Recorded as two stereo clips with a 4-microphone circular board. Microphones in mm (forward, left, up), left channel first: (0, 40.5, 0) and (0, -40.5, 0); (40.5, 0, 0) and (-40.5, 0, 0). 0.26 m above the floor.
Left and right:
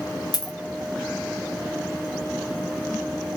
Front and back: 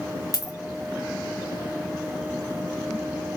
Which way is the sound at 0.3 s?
50° left.